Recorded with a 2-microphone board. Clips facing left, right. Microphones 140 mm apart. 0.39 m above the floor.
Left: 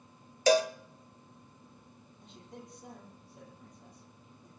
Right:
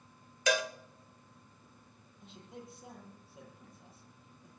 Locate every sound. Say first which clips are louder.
0.5 s a cowbell: left 7 dB; 35° left (ahead or behind), 0.9 m
2.2 s a man speaking: even; 5° right (ahead or behind), 9 m